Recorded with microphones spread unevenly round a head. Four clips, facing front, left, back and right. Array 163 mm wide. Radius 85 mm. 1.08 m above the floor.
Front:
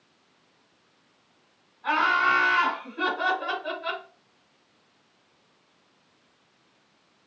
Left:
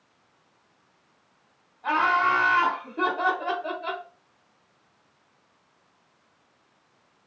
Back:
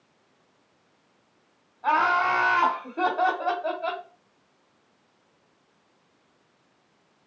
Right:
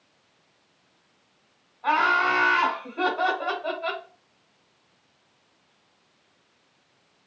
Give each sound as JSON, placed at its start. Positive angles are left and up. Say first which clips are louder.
{"t": 1.8, "sound": "laughter", "louder": "even, back 1 dB", "azimuth_deg": -160, "distance_m": 2.5}